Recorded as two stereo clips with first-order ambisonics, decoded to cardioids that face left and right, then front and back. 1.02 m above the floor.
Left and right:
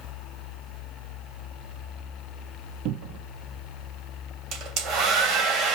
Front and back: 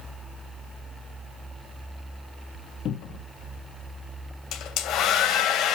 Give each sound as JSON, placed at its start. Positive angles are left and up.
{"t": 2.9, "sound": "a cupboard door", "azimuth_deg": -55, "distance_m": 1.1}
{"t": 4.5, "sound": "a hair dryer", "azimuth_deg": -45, "distance_m": 2.5}